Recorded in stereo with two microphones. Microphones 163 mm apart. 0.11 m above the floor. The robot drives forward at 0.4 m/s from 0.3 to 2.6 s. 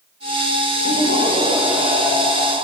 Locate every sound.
0.8 s laughter: 70° left (ahead or behind), 6.5 m